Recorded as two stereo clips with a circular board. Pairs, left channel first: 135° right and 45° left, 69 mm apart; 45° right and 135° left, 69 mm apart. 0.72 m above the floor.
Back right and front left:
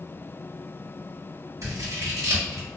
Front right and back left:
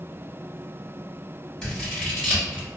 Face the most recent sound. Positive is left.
turn(degrees=35)